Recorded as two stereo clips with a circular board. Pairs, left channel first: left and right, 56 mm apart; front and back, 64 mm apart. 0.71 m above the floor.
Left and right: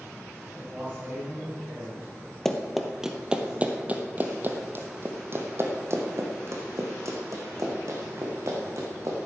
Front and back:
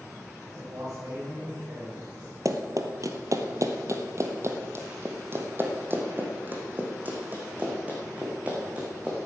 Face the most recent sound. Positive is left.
turn(degrees=-110)